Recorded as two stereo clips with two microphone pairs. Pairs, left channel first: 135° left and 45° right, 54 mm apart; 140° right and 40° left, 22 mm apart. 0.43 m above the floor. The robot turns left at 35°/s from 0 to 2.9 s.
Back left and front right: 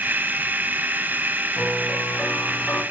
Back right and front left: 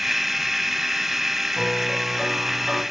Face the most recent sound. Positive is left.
turn(degrees=100)